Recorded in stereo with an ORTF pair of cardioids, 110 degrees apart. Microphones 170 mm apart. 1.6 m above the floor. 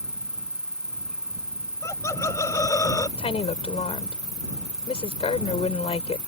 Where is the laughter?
15° left.